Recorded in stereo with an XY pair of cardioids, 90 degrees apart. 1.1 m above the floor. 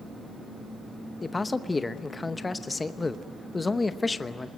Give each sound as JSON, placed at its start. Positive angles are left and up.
{"t": 1.2, "sound": "a man speaking", "azimuth_deg": 25, "distance_m": 0.9}